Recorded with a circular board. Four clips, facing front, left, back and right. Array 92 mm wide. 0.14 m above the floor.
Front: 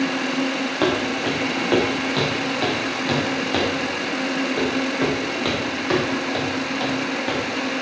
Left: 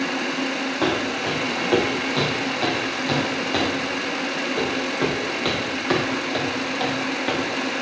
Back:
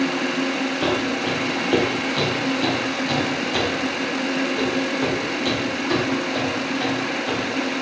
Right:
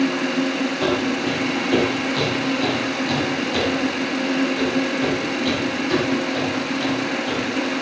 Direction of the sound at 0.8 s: 15° left.